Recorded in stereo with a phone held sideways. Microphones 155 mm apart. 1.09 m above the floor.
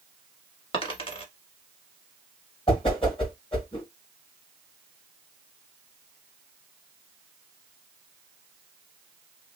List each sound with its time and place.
0.7 s a dropped coin: 35° left (ahead or behind), 1.4 m
2.7 s a whoosh: 35° left (ahead or behind), 1.5 m